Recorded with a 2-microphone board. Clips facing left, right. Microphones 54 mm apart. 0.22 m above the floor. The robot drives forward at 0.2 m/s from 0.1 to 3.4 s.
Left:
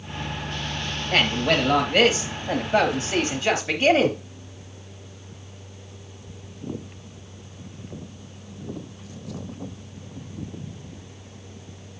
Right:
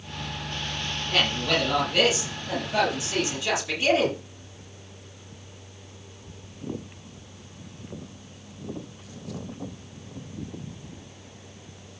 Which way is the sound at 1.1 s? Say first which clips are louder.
Left 4 dB; 50° left (ahead or behind).